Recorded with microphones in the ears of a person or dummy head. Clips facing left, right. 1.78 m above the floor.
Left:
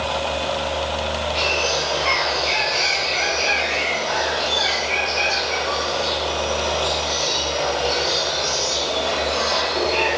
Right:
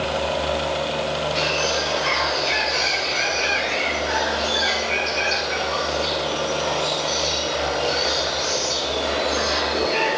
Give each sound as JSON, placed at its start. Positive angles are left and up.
{"t": 1.4, "sound": "a bird", "side_deg": -20, "distance_m": 7.0}